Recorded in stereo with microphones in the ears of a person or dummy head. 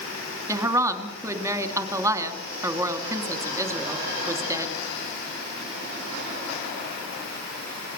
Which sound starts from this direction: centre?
A woman speaking, at 0.5 s.